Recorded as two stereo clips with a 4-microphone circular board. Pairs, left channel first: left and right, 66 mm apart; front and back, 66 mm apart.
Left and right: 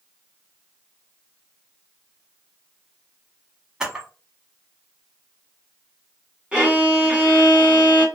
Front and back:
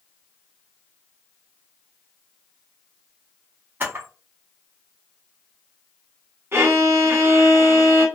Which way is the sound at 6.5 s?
155° right.